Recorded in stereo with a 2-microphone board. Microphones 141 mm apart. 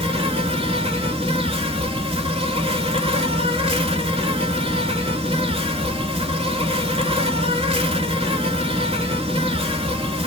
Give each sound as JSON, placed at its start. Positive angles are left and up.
{"t": 0.0, "sound": "an insect", "side_deg": -45, "distance_m": 0.7}